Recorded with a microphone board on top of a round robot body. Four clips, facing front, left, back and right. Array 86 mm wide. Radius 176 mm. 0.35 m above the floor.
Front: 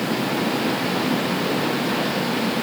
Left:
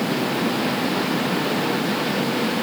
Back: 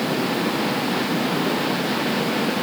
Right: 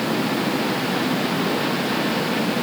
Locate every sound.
Only background noise.